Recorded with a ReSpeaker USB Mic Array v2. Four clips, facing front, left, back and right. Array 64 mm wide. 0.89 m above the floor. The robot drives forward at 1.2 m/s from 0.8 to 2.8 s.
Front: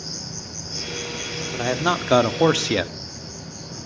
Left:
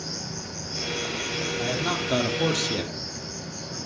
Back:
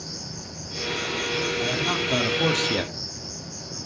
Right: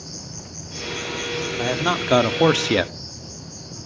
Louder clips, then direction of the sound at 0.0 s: Left 3 dB, front 1 dB; 65° left.